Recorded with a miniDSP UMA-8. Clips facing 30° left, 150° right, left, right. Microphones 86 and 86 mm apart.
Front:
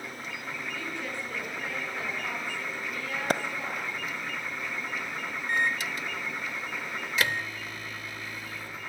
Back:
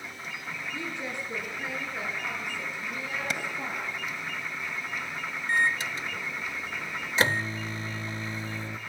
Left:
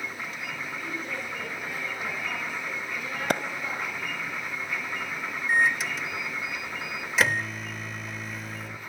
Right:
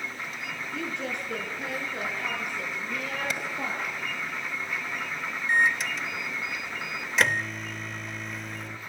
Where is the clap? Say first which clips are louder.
Front 9 dB, left 7 dB; 65° left, 1.4 m.